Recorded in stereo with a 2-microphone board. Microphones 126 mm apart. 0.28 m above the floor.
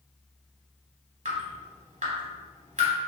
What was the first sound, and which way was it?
Dripping, 70° right (ahead or behind).